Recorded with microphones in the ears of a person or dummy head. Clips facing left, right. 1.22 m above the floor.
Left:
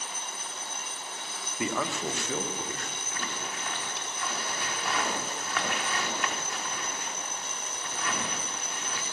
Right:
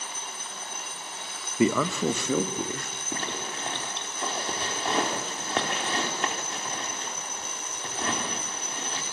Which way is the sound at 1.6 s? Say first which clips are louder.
Right 8 dB; 60° right (ahead or behind).